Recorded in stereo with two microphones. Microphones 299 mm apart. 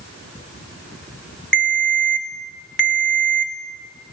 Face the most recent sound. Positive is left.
turn(degrees=35)  # may be behind; listen again after turning